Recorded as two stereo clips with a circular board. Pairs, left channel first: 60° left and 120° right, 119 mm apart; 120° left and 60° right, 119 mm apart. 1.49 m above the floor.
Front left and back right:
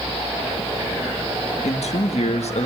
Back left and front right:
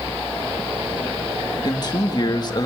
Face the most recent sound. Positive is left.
turn(degrees=70)